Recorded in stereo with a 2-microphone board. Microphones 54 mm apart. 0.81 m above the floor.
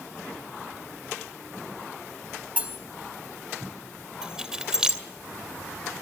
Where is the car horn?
I don't hear a car horn.